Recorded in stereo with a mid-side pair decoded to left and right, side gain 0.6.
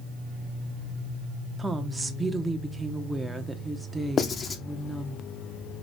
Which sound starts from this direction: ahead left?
Writing, at 4.2 s.